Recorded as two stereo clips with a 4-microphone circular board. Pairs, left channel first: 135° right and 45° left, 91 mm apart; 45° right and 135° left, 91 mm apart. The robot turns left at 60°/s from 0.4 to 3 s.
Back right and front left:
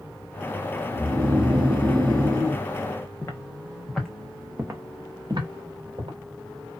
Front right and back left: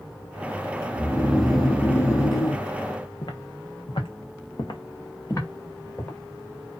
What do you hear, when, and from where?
0.9 s snoring: 80° left, 0.6 m; by 2.6 s 25° right, 0.6 m
3.2 s footsteps: 80° right, 0.8 m; by 6.2 s 25° left, 1.2 m